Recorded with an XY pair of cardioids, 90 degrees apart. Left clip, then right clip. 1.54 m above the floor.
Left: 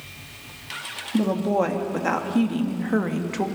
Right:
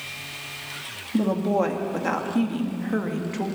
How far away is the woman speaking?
About 3 m.